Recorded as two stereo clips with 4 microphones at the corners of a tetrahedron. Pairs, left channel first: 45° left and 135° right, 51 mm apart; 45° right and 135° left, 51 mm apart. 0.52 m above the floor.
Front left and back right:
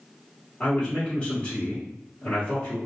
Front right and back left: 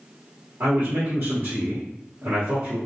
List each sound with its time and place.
0.6 s a man speaking: 95° left, 1.2 m